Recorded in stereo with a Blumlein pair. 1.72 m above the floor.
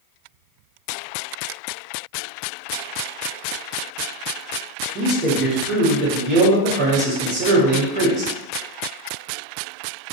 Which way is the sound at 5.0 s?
40° right.